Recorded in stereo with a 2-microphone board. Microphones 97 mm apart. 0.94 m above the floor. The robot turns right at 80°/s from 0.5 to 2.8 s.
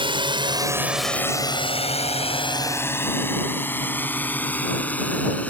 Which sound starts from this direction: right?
A drone, at 0.0 s.